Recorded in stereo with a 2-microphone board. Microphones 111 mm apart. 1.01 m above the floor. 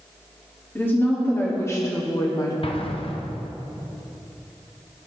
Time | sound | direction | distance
0.8 | a woman speaking | 20° left (ahead or behind) | 1.8 m
2.6 | an explosion | 55° left (ahead or behind) | 0.6 m